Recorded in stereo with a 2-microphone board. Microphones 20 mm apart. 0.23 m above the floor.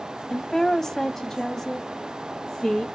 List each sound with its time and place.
0.3 s a woman speaking: 15° left (ahead or behind), 1.0 m; by 2.8 s 25° left (ahead or behind), 2 m